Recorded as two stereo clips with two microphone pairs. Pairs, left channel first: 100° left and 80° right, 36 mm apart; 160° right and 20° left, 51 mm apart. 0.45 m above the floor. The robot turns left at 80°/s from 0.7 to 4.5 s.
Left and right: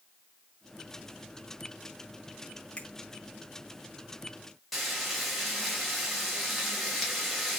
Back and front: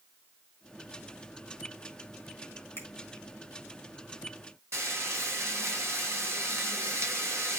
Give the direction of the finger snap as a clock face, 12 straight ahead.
7 o'clock.